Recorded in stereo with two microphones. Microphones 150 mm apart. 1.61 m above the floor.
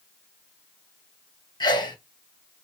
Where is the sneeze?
30° left (ahead or behind), 1.0 m.